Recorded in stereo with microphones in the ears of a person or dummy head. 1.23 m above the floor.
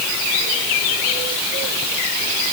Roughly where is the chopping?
I don't hear chopping.